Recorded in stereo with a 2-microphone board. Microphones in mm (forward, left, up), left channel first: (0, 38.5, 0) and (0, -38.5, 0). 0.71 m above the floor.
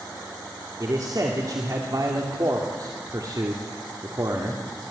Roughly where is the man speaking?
Right.